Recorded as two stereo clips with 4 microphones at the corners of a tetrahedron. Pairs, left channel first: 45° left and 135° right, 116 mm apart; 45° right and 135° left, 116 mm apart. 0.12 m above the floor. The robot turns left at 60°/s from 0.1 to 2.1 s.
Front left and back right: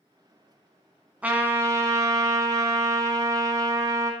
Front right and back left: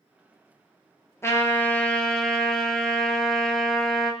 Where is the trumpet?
70° right, 0.6 m; by 4.1 s 125° right, 0.6 m.